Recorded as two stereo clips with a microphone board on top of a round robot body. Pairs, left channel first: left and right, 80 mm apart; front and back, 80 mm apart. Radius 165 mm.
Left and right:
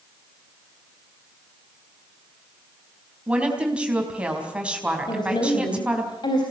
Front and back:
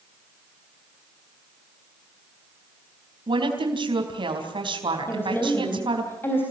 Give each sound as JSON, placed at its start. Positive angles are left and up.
{"t": 3.3, "sound": "a woman speaking", "azimuth_deg": -165, "distance_m": 4.5}
{"t": 5.1, "sound": "a woman speaking", "azimuth_deg": 65, "distance_m": 4.0}